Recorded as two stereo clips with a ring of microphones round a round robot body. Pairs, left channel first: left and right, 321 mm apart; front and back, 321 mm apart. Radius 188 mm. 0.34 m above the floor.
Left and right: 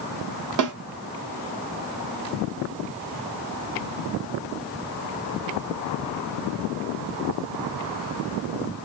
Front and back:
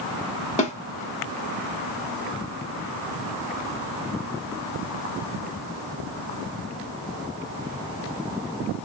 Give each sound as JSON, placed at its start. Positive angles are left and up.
{"t": 0.6, "sound": "a snare drum", "azimuth_deg": -70, "distance_m": 1.5}